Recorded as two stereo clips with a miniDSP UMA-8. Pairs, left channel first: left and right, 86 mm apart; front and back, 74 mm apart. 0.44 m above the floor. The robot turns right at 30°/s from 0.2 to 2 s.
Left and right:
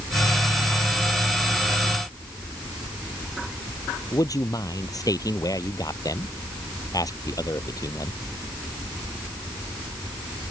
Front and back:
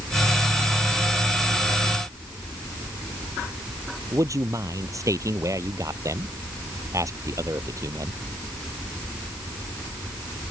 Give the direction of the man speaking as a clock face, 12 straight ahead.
7 o'clock.